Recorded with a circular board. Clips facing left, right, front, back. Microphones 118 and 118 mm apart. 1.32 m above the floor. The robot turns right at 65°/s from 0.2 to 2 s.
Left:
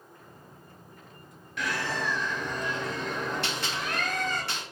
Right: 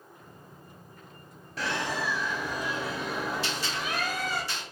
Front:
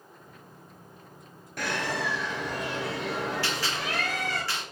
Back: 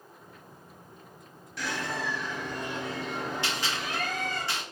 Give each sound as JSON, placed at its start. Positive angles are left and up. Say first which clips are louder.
{"t": 1.6, "sound": "a bird", "louder": "even, front 3 dB", "azimuth_deg": -35, "distance_m": 0.7}
{"t": 3.4, "sound": "a gunshot", "louder": "even, front 1 dB", "azimuth_deg": 110, "distance_m": 1.4}